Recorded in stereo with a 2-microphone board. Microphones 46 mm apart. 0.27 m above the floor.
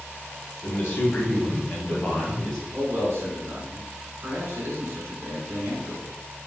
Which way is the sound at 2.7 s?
60° right (ahead or behind).